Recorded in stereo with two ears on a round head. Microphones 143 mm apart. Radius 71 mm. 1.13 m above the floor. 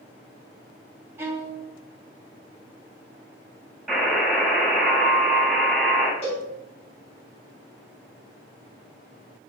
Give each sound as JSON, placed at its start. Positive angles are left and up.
{"t": 1.2, "sound": "a violin", "side_deg": -15, "distance_m": 2.0}
{"t": 3.9, "sound": "a buzzer", "side_deg": 0, "distance_m": 4.0}
{"t": 6.2, "sound": "a cowbell", "side_deg": 40, "distance_m": 4.5}